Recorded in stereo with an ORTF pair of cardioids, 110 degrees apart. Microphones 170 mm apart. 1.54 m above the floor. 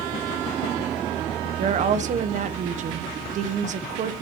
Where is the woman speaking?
45° right, 1.2 m.